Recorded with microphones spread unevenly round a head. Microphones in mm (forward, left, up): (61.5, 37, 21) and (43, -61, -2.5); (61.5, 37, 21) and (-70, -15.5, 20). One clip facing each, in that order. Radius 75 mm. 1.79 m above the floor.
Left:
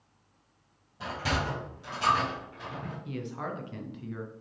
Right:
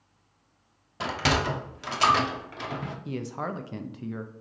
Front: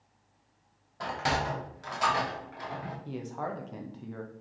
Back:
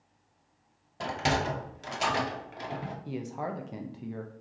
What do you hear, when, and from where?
1.0 s a sliding door: 90° right, 0.8 m
3.0 s a man speaking: 90° right, 0.5 m